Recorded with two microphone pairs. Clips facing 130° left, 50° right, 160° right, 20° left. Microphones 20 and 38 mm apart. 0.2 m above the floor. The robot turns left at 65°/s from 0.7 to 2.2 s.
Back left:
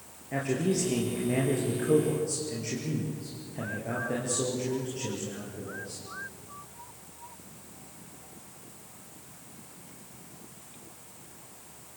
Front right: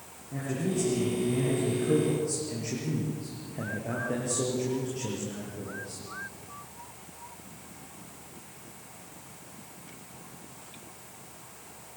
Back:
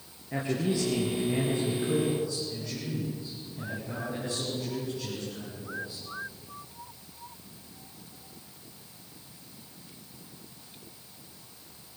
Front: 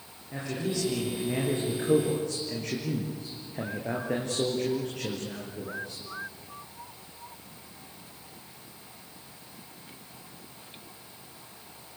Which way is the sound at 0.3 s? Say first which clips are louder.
Back left 3 dB, back 3 dB; 135° left.